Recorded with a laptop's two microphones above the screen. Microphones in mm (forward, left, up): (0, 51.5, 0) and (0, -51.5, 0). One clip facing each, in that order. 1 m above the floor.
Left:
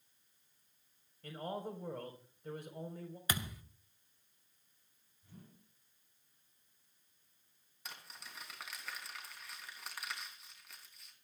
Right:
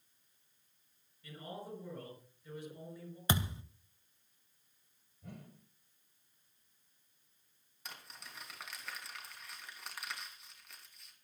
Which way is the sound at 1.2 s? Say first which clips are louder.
Left 5 dB; 55° left (ahead or behind).